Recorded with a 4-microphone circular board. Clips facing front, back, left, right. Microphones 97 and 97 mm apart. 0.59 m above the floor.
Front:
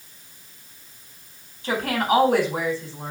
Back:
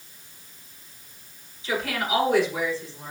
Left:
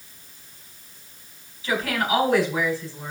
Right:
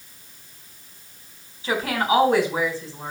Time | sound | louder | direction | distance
1.6 | a woman speaking | front 5 dB, right 2 dB | 30° right | 4 m